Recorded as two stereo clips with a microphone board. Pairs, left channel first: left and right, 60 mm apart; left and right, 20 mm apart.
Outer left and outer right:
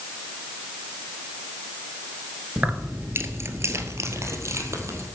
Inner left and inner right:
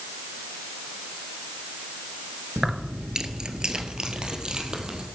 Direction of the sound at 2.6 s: 25° right (ahead or behind).